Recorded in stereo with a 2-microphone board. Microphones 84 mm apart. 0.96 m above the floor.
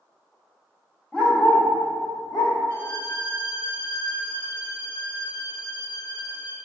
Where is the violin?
85° left, 1.3 m.